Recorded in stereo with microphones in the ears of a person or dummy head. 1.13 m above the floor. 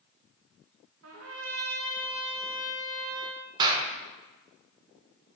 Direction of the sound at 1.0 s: 75° right (ahead or behind).